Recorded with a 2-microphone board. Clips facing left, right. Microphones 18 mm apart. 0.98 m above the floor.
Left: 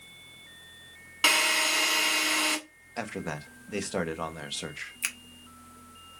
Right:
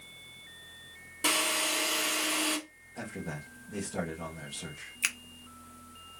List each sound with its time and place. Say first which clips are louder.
1.2 s a drill: left 5 dB; 80° left, 1.9 m
3.0 s a man speaking: left 5 dB; 75° left (ahead or behind), 0.8 m
5.0 s a finger snap: right 3 dB; 20° right (ahead or behind), 0.6 m